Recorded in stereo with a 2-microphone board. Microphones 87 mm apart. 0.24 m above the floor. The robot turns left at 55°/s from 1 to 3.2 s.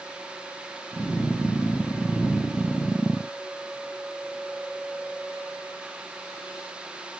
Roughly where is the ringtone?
I don't hear a ringtone.